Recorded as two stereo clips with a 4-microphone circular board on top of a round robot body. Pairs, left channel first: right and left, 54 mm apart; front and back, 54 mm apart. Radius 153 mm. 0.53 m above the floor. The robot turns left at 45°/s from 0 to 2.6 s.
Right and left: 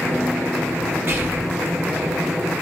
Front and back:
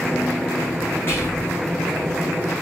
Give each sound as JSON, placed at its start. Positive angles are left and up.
{"t": 1.1, "sound": "whispering", "azimuth_deg": 45, "distance_m": 2.5}